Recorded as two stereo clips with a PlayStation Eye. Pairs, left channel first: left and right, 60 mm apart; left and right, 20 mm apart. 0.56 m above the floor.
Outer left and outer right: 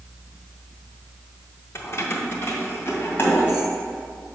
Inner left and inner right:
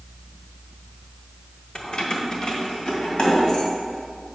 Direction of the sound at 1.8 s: 50° left (ahead or behind).